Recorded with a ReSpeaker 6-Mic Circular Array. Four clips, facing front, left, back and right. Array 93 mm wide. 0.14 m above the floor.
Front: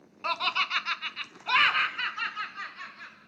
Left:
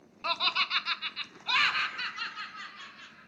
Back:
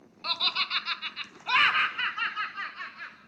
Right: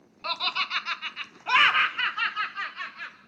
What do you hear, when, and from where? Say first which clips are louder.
0.2 s laughter: right 1 dB, front 4 dB; 10° left, 1.1 m; by 3.2 s 110° right, 1.6 m